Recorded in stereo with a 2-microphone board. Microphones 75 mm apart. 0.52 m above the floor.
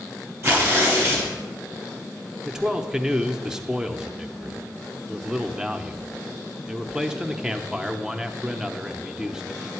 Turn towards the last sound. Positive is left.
turn(degrees=-10)  # may be behind; listen again after turning